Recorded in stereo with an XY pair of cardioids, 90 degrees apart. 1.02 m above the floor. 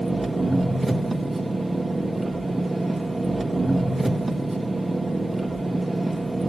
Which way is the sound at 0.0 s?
15° right.